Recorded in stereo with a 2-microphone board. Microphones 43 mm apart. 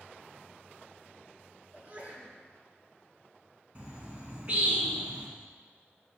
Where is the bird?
35° right (ahead or behind), 1.9 m.